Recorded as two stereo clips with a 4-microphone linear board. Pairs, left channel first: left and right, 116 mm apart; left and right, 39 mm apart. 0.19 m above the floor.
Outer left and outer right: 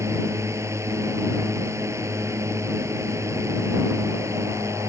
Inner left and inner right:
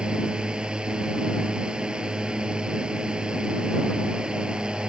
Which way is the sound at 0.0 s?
25° right (ahead or behind).